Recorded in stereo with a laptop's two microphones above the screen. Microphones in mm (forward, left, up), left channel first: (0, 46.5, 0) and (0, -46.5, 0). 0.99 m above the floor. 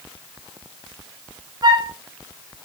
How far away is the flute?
About 0.7 m.